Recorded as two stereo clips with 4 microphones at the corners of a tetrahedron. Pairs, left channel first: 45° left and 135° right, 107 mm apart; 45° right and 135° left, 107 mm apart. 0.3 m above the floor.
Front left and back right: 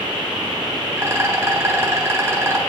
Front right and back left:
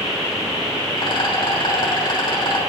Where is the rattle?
70° right, 3 m.